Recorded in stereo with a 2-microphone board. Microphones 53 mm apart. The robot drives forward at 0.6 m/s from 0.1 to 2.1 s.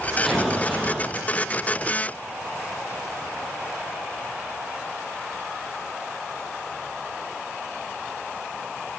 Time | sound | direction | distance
0.2 | an explosion | centre (ahead or behind) | 6.5 m